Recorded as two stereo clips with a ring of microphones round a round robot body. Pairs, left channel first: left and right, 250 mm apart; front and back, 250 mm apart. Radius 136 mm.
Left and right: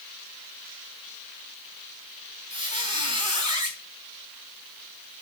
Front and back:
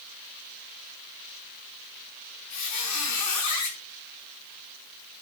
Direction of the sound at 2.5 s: 20° right.